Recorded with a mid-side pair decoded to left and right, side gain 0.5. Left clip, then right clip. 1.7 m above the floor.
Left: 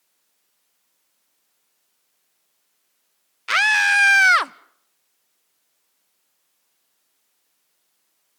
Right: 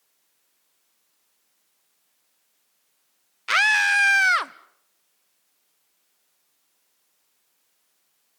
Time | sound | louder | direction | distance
3.5 | a scream | left 2 dB | 5° left | 1.0 m